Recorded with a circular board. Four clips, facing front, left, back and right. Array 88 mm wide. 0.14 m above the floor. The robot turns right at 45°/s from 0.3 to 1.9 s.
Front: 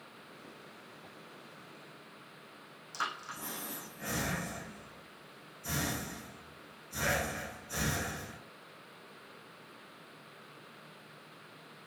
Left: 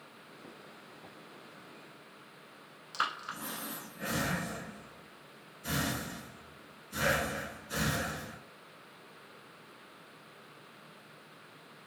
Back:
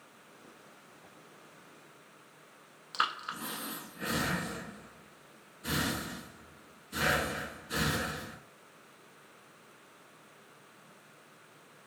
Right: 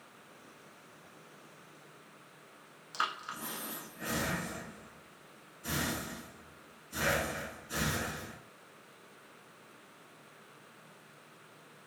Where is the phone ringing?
I don't hear a phone ringing.